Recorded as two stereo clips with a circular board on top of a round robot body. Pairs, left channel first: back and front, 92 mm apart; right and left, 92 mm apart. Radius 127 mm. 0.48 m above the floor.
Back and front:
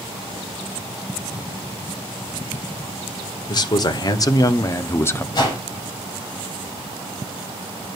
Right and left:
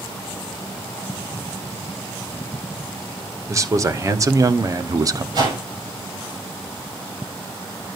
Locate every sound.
3.5 s a man speaking: 145° left, 2.0 m; by 5.2 s 120° left, 1.1 m
5.3 s a whoosh: 135° left, 6.5 m